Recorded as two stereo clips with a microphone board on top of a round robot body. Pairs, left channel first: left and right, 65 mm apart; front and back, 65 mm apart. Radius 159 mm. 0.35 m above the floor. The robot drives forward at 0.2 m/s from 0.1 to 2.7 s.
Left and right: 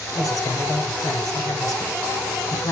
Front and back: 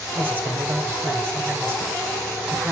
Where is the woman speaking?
120° left, 2.5 m; by 2.7 s 125° left, 3 m.